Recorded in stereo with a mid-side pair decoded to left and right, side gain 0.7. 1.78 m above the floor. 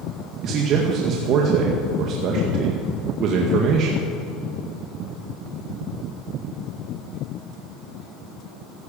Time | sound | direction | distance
0.4 | a man speaking | 50° right | 2.0 m